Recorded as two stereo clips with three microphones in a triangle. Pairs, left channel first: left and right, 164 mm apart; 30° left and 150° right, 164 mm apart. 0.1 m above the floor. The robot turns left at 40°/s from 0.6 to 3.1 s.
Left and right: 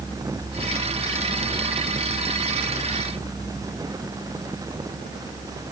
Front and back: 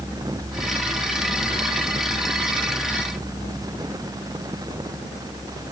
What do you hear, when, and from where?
Only background noise.